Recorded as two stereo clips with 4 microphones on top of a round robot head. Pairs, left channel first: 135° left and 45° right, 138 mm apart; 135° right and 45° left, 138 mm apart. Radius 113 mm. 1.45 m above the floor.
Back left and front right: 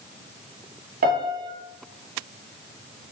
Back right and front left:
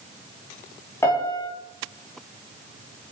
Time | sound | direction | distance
1.0 | a piano | 60° right | 4 m